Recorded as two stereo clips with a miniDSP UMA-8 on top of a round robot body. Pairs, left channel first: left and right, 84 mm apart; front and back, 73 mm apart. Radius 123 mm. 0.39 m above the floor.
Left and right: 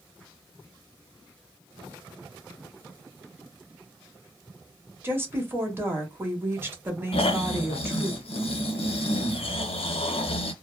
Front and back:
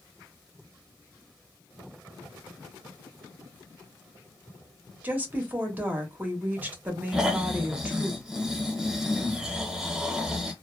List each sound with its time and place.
5.0 s a woman speaking: 130° right, 1.3 m
7.1 s snoring: 95° left, 0.6 m